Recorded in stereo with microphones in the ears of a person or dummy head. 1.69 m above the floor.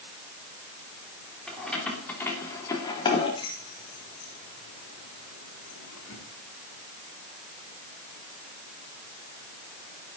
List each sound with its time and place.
1.5 s keys jangling: 5° left (ahead or behind), 3.5 m; by 6.2 s 70° left (ahead or behind), 3 m